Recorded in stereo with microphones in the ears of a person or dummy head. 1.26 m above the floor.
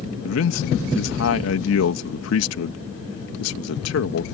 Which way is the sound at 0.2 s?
75° left (ahead or behind).